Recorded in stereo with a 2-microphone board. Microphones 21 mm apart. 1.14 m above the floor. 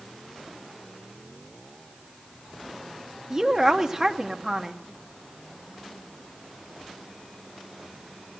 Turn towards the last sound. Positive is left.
turn(degrees=-20)  # may be behind; listen again after turning